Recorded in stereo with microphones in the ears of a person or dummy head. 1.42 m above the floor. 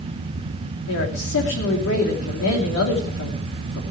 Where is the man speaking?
65° left (ahead or behind), 3 m.